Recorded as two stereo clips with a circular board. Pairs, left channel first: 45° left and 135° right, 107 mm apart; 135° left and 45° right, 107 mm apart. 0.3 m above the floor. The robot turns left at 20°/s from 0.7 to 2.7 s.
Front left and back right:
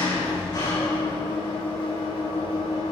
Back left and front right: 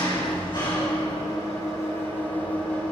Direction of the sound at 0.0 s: 95° left.